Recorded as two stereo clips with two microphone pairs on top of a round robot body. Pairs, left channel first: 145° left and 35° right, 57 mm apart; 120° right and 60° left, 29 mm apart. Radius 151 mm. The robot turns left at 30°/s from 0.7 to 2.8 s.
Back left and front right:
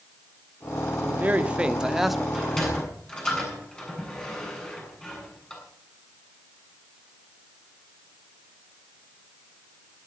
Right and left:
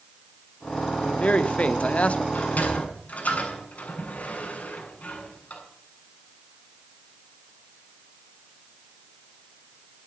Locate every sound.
1.0 s a man speaking: 90° right, 1.7 m; by 2.2 s 125° right, 1.7 m
2.3 s a sliding door: 125° right, 7.5 m; by 5.6 s 140° right, 7.5 m